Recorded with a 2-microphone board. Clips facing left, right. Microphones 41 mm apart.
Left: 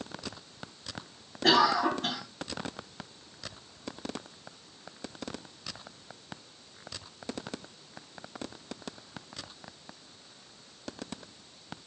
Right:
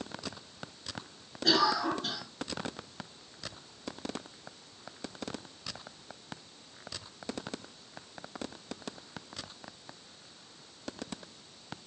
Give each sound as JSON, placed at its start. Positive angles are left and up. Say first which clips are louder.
{"t": 1.4, "sound": "a cough", "louder": "left 4 dB", "side_deg": 60, "distance_m": 2.5}